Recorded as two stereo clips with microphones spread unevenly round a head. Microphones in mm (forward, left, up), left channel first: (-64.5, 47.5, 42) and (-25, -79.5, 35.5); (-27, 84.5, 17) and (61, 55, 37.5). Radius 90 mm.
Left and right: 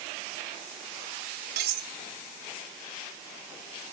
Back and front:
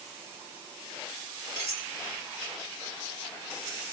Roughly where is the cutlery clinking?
Right.